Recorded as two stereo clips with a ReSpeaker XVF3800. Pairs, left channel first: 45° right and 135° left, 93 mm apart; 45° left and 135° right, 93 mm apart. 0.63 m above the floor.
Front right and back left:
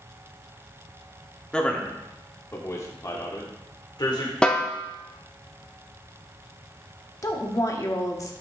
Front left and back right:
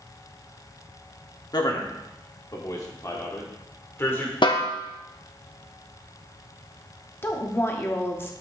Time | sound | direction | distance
1.5 | a man speaking | 30° left | 1.3 m
4.4 | a snare drum | 35° left | 0.9 m
7.2 | a woman speaking | 10° right | 1.0 m